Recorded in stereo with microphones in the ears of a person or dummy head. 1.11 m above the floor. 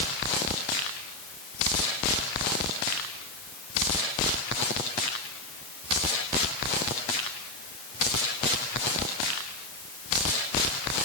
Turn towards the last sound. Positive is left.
No sound to turn to.